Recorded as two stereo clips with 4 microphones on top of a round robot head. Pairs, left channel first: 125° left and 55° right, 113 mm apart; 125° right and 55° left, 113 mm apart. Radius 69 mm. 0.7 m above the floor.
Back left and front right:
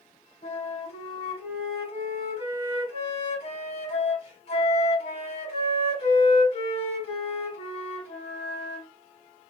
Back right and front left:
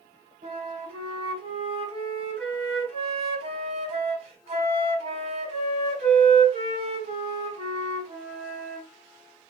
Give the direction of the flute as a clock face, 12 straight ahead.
9 o'clock.